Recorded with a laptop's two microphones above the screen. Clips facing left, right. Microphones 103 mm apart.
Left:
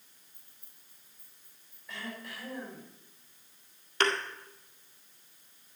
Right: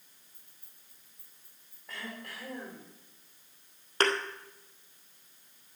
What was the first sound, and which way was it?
Keys jangling, 65° right (ahead or behind).